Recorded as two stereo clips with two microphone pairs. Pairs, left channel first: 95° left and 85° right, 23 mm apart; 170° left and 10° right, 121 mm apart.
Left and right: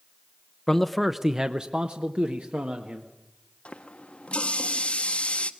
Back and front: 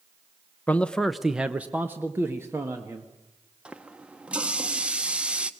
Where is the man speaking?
130° left, 0.7 m; by 3.1 s 80° right, 1.7 m.